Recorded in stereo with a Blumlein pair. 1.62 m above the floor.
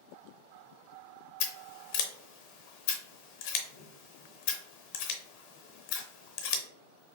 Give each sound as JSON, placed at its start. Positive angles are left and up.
{"t": 1.4, "sound": "scissors", "azimuth_deg": 45, "distance_m": 0.7}